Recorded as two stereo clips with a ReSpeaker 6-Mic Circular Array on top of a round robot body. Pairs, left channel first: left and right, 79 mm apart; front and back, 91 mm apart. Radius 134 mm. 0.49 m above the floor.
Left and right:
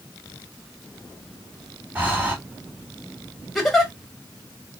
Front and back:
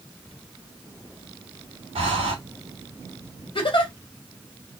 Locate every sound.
1.9 s breathing: 160° right, 0.5 m
3.5 s a giggle: 5° left, 1.7 m